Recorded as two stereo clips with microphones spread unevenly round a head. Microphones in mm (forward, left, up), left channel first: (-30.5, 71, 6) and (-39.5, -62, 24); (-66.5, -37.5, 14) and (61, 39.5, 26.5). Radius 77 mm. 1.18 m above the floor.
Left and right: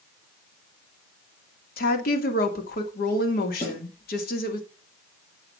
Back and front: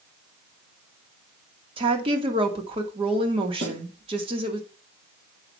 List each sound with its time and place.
1.8 s a woman speaking: 85° left, 2.5 m
3.6 s a snare drum: 35° left, 7 m